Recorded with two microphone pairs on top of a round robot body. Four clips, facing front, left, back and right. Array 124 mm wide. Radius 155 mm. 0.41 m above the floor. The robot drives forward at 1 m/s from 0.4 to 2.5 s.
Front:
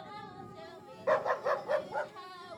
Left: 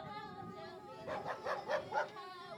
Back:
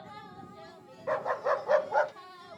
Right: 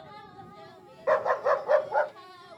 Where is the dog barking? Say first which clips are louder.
Right 17 dB, even; 80° right; by 2.1 s 130° right.